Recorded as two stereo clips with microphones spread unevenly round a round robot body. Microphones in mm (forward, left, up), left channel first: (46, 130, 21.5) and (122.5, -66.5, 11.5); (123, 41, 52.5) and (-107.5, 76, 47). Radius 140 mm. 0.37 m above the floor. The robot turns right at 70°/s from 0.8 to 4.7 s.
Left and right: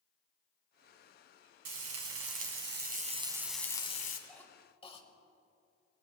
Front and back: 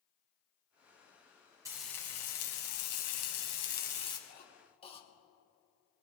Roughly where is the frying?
Right.